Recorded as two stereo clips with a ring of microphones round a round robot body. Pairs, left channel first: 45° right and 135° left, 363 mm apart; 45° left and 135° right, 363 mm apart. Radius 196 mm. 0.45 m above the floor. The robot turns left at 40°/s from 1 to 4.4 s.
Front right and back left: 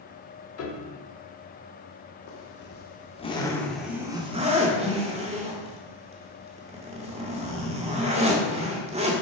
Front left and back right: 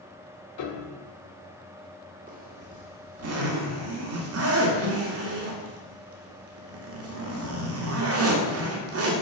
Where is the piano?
5° left, 1.0 m.